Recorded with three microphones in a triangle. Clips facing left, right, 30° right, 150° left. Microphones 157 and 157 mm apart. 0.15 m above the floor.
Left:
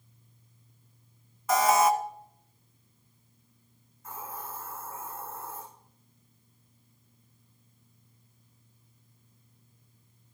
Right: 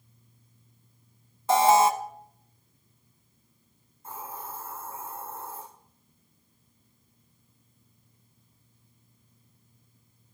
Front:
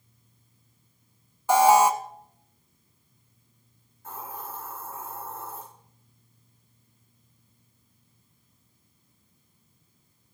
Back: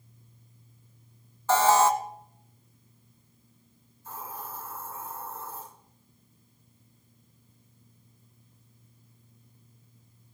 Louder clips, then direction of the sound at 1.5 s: Right 3 dB, front 3 dB; 95° right.